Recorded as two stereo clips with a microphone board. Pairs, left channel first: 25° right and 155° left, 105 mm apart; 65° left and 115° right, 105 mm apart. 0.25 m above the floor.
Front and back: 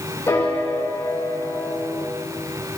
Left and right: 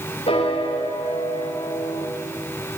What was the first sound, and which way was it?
A piano, 45° left.